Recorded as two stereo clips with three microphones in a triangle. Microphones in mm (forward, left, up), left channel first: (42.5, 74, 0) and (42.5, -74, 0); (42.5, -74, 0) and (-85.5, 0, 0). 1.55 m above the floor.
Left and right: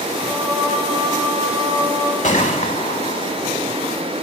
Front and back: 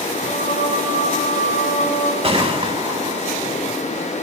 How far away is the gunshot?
About 3 m.